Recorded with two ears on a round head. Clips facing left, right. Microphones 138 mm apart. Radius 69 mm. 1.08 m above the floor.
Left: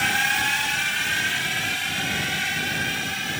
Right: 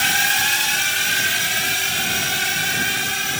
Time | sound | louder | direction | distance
0.0 | a drone | right 2 dB | 50° right (ahead or behind) | ?